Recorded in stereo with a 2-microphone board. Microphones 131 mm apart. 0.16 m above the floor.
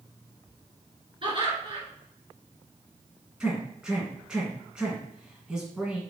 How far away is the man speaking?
About 1.6 m.